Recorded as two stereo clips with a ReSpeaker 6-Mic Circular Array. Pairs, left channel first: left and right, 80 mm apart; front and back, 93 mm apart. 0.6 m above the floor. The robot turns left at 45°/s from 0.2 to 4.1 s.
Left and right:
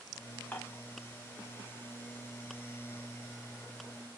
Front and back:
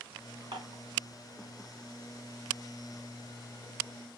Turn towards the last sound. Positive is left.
turn(degrees=0)